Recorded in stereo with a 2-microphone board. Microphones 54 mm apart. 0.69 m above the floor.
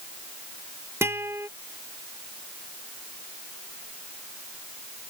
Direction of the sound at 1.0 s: 55° right (ahead or behind).